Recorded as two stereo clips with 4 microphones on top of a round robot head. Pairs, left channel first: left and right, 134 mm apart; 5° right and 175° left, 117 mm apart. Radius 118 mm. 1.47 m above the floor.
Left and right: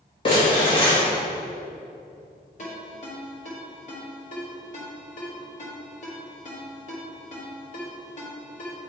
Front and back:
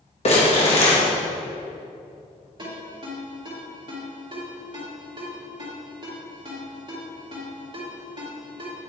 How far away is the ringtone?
About 2.5 m.